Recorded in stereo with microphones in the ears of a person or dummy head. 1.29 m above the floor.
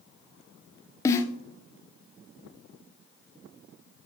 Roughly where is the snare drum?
Centre.